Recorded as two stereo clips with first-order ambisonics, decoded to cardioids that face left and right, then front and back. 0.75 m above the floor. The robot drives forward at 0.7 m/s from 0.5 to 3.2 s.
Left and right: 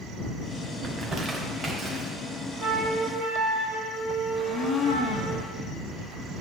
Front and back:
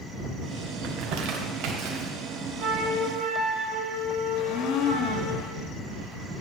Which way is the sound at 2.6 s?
Straight behind.